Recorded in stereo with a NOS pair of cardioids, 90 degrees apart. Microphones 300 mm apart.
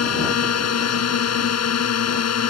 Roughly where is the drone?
Ahead left.